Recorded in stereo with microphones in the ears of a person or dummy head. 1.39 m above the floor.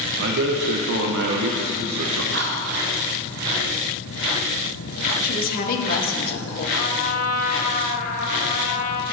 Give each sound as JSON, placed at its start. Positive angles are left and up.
{"t": 0.2, "sound": "a man speaking", "side_deg": -60, "distance_m": 0.8}
{"t": 2.3, "sound": "whispering", "side_deg": -55, "distance_m": 0.9}
{"t": 5.2, "sound": "a woman speaking", "side_deg": 50, "distance_m": 1.6}
{"t": 6.8, "sound": "a trumpet", "side_deg": 45, "distance_m": 1.3}